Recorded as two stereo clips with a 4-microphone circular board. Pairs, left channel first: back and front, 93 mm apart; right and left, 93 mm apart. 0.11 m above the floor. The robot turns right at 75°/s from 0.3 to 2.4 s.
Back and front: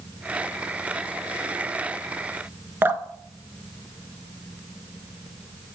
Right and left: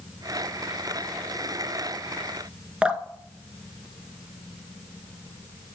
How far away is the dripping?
About 0.5 m.